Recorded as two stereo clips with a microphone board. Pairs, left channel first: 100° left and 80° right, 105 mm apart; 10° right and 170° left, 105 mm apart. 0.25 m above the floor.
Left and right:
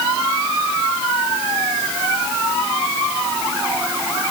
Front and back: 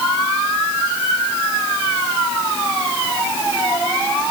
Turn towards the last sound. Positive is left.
No sound to turn to.